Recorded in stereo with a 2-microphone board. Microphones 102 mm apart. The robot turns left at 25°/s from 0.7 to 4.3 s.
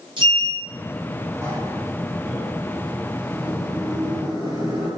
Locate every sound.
0.2 s a sliding door: 50° right (ahead or behind), 0.9 m; by 4.9 s 40° left (ahead or behind), 0.9 m